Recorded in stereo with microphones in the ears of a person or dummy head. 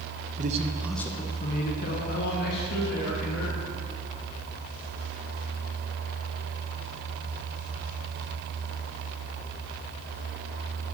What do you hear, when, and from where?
0.4 s a man speaking: 35° right (ahead or behind), 0.7 m; by 3.6 s 60° left (ahead or behind), 2.5 m